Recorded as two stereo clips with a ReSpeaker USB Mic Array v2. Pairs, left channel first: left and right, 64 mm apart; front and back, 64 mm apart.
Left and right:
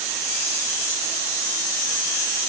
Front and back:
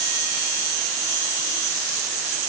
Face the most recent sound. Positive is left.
No sound to turn to.